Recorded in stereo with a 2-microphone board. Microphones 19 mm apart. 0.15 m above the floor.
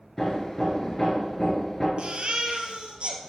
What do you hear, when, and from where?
0.2 s hammering: 25° left (ahead or behind), 2 m
2.0 s a baby crying: 65° right (ahead or behind), 1.3 m